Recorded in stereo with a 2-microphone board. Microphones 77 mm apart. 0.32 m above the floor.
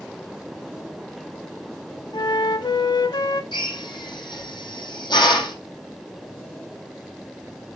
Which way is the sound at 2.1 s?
75° left (ahead or behind).